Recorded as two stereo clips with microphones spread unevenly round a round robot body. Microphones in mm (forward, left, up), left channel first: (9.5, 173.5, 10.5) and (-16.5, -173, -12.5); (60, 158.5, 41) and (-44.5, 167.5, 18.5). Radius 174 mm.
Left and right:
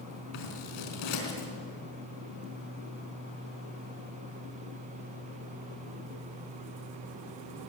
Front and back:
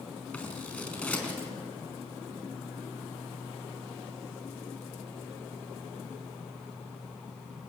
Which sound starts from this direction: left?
Scissors, at 0.3 s.